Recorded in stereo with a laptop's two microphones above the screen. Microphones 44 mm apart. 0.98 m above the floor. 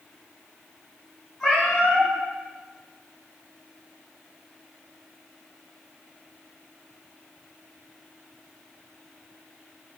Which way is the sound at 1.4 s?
10° left (ahead or behind).